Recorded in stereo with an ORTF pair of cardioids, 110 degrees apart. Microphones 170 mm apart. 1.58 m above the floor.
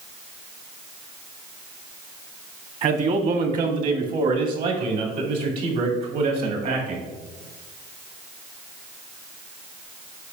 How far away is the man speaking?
About 1.4 m.